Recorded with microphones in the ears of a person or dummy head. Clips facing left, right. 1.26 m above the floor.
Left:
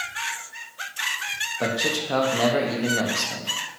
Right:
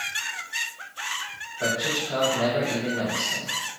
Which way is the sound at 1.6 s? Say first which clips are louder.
Left 2 dB; 75° left (ahead or behind).